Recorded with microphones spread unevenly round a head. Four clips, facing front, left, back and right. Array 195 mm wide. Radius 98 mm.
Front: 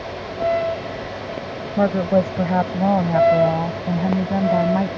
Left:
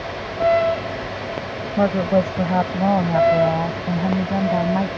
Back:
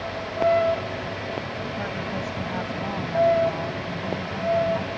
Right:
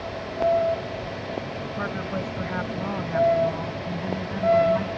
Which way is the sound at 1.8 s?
40° left.